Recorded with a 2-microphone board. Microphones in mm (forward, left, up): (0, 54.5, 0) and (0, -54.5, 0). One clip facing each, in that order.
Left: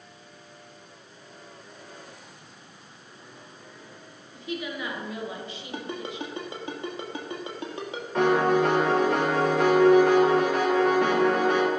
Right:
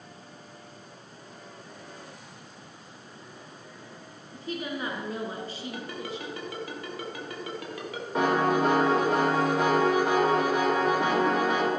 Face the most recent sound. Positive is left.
turn(degrees=-15)  # may be behind; listen again after turning